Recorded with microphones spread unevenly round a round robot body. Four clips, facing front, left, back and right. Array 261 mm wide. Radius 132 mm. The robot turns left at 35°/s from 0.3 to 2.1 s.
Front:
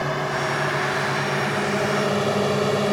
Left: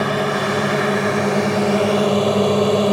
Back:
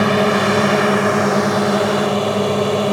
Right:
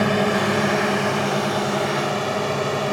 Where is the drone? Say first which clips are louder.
Even, back 10 dB; straight behind; by 2.9 s 110° left.